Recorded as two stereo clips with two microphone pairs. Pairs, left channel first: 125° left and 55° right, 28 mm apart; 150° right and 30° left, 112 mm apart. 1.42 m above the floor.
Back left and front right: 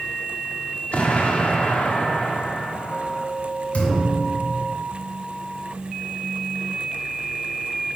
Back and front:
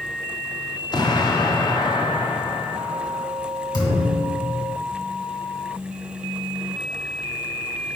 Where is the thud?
165° left, 2.5 m.